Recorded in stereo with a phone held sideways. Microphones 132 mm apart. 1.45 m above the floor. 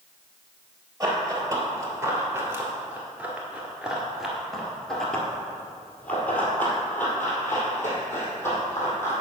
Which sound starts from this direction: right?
Running footsteps, at 1.0 s.